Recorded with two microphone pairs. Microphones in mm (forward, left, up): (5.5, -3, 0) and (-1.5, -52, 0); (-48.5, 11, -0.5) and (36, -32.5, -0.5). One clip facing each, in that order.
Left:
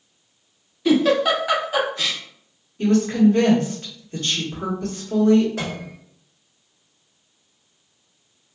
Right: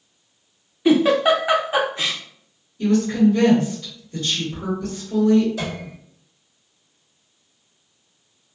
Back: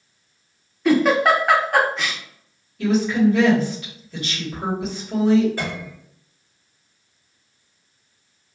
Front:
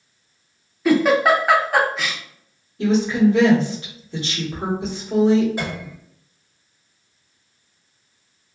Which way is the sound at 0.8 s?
115° right.